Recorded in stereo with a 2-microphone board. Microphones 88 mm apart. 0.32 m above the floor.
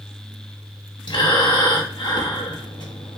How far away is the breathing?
About 0.7 m.